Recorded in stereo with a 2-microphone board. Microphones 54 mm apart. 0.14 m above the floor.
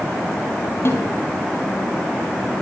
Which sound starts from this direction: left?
A snare drum, at 0.8 s.